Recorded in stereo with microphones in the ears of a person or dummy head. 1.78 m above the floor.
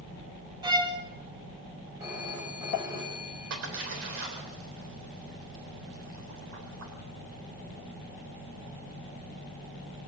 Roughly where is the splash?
Right.